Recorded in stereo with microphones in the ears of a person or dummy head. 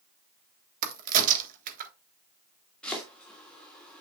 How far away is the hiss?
I don't hear a hiss.